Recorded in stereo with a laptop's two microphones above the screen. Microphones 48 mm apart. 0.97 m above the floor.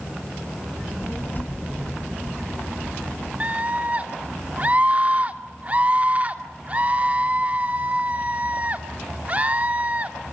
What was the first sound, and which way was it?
A child speaking, 45° left (ahead or behind).